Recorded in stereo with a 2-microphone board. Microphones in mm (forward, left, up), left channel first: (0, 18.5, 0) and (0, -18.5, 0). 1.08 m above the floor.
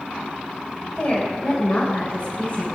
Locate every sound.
1.0 s a woman speaking: 40° left (ahead or behind), 4.5 m